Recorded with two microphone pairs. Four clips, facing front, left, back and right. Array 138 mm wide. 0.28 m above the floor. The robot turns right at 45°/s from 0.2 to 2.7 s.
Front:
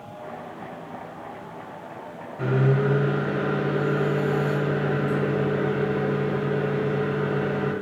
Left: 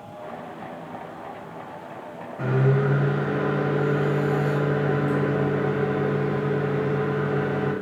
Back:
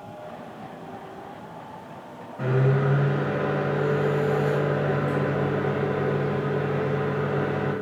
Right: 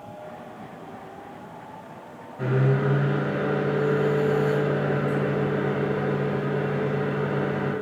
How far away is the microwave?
About 1.2 m.